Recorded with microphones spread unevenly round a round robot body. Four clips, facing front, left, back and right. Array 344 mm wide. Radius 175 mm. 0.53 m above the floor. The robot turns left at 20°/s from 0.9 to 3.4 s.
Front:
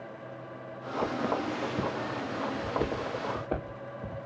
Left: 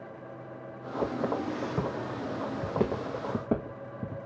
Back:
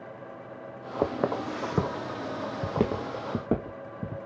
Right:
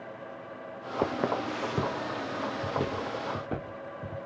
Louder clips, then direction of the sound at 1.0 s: Right 1 dB, back 3 dB; 140° right.